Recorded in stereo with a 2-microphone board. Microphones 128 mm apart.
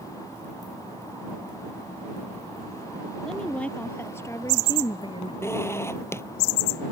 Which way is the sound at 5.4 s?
20° left (ahead or behind).